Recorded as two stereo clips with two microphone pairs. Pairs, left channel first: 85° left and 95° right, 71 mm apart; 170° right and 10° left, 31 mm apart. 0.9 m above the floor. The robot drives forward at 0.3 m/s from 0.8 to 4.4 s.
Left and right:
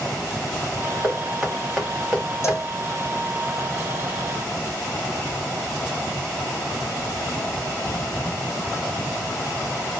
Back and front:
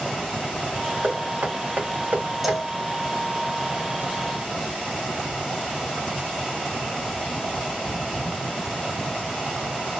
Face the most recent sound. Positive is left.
turn(degrees=140)